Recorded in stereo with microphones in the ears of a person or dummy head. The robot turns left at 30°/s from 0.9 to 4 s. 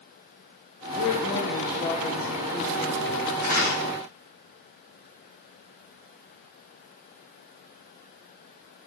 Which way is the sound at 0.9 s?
50° left.